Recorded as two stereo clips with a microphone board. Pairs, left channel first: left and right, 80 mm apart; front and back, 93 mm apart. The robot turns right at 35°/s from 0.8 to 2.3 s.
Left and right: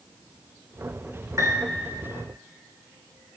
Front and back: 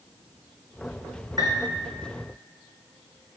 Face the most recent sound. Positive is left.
turn(degrees=-110)